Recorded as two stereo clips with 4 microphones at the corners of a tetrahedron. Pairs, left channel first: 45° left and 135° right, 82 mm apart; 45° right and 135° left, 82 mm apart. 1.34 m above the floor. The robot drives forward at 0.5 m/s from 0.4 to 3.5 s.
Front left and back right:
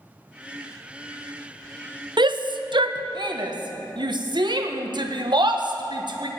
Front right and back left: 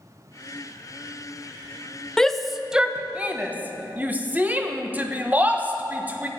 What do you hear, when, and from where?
2.2 s a shout: 125° right, 0.6 m; by 6.3 s 155° right, 1.1 m